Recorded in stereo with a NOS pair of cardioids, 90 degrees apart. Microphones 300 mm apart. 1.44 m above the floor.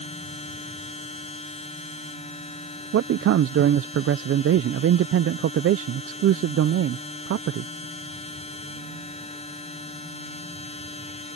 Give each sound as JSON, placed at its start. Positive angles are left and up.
{"t": 0.0, "sound": "a machine running", "azimuth_deg": 20}
{"t": 2.9, "sound": "a man speaking", "azimuth_deg": -50}